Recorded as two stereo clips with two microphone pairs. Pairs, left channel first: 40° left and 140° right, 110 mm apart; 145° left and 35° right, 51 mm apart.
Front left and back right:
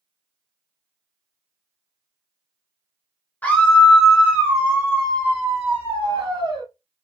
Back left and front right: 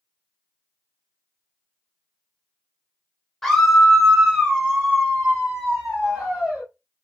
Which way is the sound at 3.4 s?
75° left.